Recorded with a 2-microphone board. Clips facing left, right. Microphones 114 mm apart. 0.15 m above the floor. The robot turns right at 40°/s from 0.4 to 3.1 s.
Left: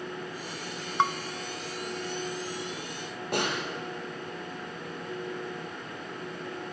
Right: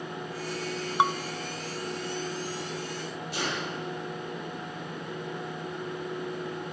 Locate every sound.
1.0 s dishes clattering: 15° right (ahead or behind), 0.7 m
3.3 s a snare drum: 65° left (ahead or behind), 5 m